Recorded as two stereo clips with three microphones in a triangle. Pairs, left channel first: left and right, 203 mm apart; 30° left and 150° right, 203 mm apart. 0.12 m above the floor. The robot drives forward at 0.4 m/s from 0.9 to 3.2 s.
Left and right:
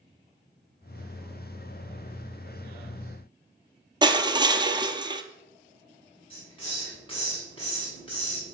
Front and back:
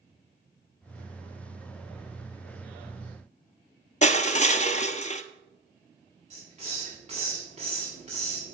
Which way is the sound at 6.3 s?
155° left.